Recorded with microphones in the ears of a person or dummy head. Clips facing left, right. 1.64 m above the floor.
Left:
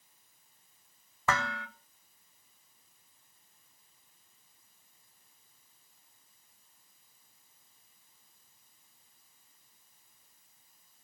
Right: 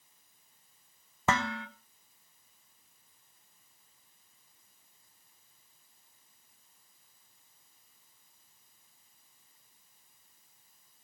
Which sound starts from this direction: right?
Dishes clattering, at 1.3 s.